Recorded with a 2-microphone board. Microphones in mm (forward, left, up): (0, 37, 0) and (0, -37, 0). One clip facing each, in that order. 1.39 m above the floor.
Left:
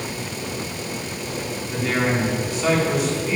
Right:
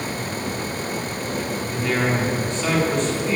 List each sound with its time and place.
1.7 s a man speaking: 5° left (ahead or behind), 4.5 m